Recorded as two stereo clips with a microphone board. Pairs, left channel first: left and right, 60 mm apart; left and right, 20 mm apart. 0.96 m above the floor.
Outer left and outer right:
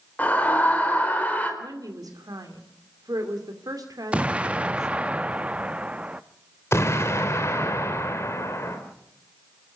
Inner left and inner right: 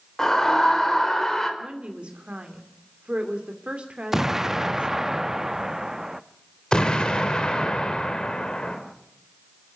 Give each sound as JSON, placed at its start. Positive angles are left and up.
{"t": 0.2, "sound": "a scream", "side_deg": 25, "distance_m": 4.0}
{"t": 1.6, "sound": "a woman speaking", "side_deg": -85, "distance_m": 2.5}
{"t": 4.1, "sound": "an explosion", "side_deg": -20, "distance_m": 0.6}
{"t": 6.7, "sound": "an explosion", "side_deg": 45, "distance_m": 3.0}